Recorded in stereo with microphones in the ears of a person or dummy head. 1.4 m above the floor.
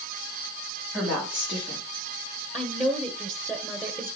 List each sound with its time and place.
0.9 s a woman speaking: 5° right (ahead or behind), 3.5 m
2.5 s a woman speaking: 10° right (ahead or behind), 1.3 m